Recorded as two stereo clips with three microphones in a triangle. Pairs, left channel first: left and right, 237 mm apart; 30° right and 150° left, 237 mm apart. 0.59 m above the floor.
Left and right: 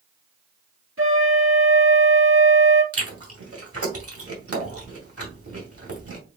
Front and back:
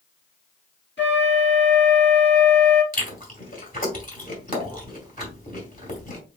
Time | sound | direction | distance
1.0 | a flute | 65° right | 2 m
2.9 | chewing | 85° right | 2 m